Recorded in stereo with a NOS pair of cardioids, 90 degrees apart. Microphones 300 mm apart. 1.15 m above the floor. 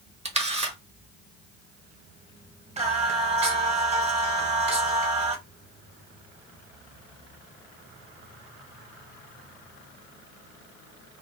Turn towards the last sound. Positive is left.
turn(degrees=-25)